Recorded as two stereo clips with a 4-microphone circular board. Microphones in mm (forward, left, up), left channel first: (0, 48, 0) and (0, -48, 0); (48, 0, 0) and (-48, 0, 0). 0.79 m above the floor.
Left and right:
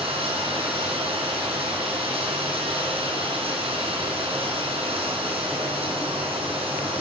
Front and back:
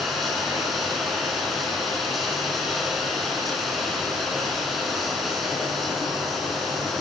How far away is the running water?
About 3.5 m.